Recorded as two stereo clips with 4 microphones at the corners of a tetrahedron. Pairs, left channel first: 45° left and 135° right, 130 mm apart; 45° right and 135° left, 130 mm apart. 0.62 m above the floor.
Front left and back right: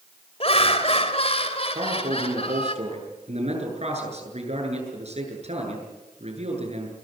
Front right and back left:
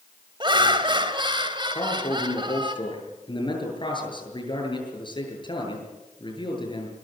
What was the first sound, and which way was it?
Laughter, 85° left.